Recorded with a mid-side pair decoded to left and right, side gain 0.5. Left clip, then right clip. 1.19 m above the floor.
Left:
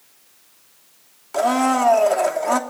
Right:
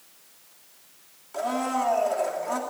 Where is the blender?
55° left, 2.5 m.